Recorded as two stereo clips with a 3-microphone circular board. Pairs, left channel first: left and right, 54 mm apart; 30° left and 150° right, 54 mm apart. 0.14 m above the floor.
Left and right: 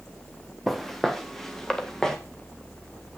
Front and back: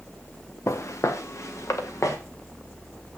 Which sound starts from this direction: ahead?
Footsteps, at 0.7 s.